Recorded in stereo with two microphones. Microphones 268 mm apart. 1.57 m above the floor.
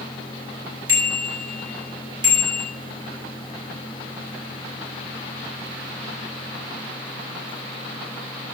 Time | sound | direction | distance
0.9 | a bicycle bell | 60° right (ahead or behind) | 8.5 m